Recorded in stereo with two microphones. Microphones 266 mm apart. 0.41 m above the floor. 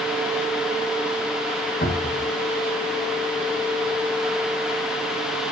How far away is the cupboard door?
About 2.5 m.